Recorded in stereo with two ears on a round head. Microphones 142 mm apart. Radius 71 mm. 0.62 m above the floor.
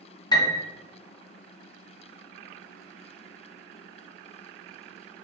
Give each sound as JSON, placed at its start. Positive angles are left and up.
{"t": 0.3, "sound": "a piano", "side_deg": 25, "distance_m": 0.7}